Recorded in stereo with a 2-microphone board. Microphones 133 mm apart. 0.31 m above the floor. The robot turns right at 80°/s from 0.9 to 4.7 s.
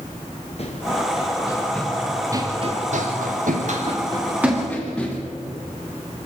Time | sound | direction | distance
0.6 | running footsteps | 50° left (ahead or behind) | 2.5 m